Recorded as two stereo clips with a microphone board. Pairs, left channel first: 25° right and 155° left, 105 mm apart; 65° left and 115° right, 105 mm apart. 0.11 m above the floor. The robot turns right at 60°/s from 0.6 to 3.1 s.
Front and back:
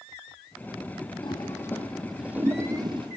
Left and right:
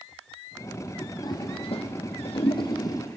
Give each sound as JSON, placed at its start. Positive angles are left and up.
{"t": 1.2, "sound": "a toilet flushing", "azimuth_deg": 15, "distance_m": 1.6}